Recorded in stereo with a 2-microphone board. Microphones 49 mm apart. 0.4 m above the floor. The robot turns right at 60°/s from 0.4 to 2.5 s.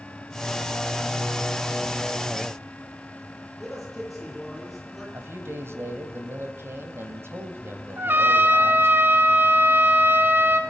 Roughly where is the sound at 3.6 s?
Centre.